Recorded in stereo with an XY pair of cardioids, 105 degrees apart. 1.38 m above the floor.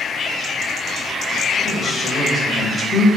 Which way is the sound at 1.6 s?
25° left.